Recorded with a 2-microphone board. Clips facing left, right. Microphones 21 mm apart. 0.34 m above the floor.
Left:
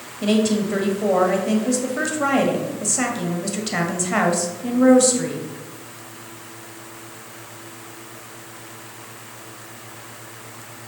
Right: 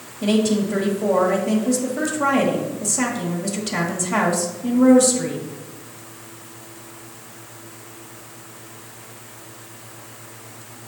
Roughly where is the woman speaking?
Centre.